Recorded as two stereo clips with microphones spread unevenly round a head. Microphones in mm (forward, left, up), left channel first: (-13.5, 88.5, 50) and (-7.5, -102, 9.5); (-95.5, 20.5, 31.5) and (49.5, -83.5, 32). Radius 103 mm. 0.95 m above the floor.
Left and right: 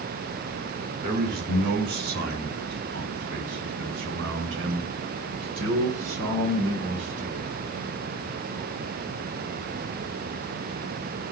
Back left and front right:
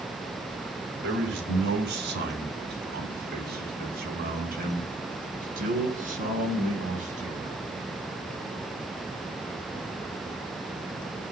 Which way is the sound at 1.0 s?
45° right.